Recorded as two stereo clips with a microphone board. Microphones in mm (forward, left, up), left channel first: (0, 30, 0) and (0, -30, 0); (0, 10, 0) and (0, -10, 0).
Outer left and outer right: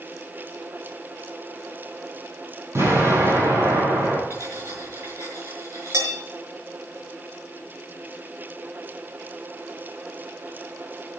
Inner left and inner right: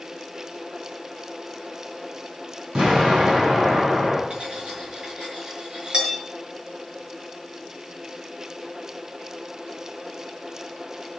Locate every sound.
2.8 s an explosion: 45° right (ahead or behind), 7 m
4.3 s cutlery clinking: 50° right (ahead or behind), 6 m